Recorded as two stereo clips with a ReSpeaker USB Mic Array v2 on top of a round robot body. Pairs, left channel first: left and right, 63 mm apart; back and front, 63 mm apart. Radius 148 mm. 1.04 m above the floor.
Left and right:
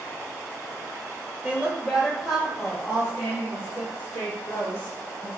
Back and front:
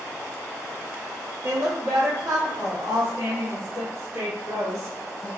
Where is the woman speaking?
30° right, 0.8 m; by 5.3 s 25° left, 4 m.